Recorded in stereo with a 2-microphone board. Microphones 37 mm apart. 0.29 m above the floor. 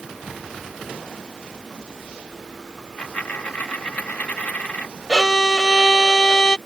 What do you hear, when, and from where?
2.8 s a dropped coin: 45° left (ahead or behind)
5.1 s a violin: 15° left (ahead or behind)